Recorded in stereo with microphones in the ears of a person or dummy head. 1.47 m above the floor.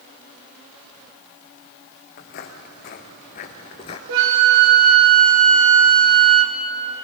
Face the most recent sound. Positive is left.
turn(degrees=-80)